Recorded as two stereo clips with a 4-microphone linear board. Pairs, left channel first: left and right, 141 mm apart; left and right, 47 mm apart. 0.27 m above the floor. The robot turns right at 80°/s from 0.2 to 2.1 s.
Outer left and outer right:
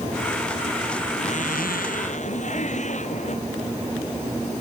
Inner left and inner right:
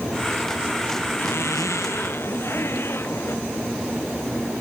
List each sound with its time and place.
1.2 s a zipper: 50° left; by 3.4 s 120° left